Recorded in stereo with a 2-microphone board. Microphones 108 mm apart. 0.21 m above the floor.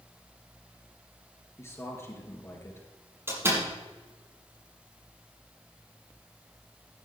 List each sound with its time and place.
1.6 s a man speaking: 25° left (ahead or behind), 3 m
3.3 s a door slam: 25° right (ahead or behind), 5 m